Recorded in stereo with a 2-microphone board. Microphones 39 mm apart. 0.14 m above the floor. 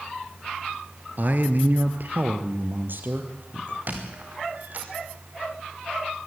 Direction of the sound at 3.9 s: 50° right (ahead or behind).